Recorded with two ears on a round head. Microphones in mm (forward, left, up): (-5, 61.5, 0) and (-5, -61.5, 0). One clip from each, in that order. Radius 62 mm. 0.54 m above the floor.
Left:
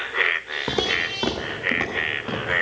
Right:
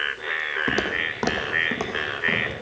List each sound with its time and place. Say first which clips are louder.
0.7 s footsteps: left 1 dB; 25° right (ahead or behind), 1.0 m; by 2.5 s 55° right (ahead or behind), 2 m